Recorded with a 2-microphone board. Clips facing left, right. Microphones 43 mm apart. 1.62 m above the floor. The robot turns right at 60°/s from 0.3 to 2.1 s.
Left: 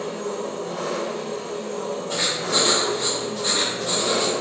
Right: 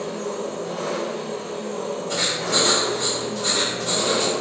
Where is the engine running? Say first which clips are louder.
Even; 155° left, 1.6 m; by 4.4 s 100° right, 1.6 m.